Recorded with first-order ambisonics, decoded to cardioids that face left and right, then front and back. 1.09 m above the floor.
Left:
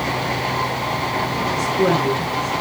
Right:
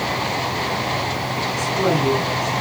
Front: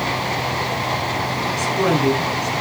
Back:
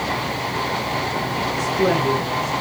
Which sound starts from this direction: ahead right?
A woman speaking, at 1.6 s.